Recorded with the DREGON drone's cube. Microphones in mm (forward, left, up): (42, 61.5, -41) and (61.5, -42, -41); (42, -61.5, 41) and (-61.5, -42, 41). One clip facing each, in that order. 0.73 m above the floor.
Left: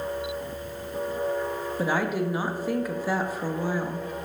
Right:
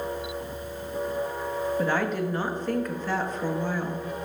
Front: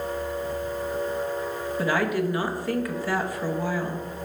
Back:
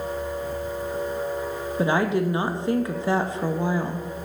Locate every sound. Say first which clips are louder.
1.8 s a woman speaking: left 2 dB, back 3 dB; 165° left, 0.5 m